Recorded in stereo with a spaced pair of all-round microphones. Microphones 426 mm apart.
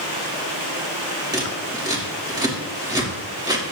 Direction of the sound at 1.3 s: 10° right (ahead or behind).